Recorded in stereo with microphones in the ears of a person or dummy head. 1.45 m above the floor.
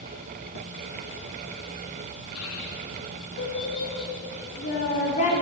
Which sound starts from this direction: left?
A child speaking, at 2.4 s.